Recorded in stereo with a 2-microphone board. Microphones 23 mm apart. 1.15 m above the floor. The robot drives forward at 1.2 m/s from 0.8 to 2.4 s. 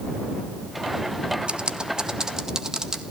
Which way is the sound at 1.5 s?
50° right (ahead or behind).